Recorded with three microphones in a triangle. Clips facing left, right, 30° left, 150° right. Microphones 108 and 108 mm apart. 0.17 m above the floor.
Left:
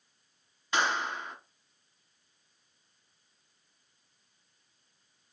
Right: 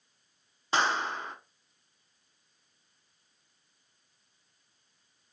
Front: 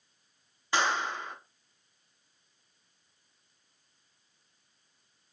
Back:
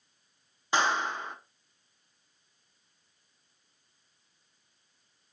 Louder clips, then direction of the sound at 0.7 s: Right 2 dB, back 1 dB; 100° right.